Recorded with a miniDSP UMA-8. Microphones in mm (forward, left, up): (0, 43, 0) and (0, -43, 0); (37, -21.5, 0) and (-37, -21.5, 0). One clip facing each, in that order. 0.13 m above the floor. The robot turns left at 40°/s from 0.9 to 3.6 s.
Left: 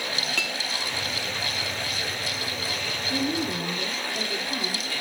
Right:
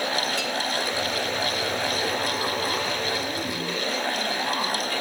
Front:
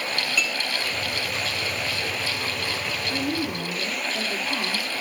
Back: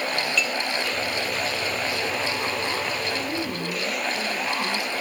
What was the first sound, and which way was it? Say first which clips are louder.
A clink: right 3 dB, front 1 dB; 80° left.